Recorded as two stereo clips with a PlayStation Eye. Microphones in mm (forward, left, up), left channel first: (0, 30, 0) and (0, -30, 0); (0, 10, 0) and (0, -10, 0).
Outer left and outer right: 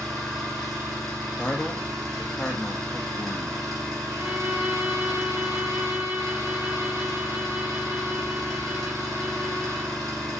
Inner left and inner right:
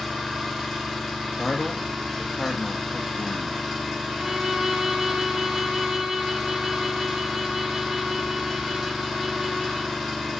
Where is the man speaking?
15° left (ahead or behind), 0.6 m.